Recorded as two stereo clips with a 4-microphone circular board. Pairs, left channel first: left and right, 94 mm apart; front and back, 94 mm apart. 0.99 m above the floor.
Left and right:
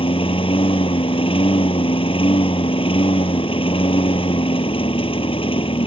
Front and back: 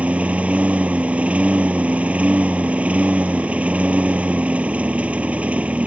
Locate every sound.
0.0 s a lawn mower: 105° left